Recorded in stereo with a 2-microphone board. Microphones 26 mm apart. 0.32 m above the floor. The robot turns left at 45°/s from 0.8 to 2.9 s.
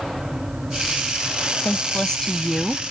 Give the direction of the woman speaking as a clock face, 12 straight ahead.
10 o'clock.